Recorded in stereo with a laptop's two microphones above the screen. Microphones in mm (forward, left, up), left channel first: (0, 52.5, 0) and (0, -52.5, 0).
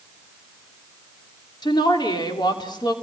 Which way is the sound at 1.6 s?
45° left (ahead or behind).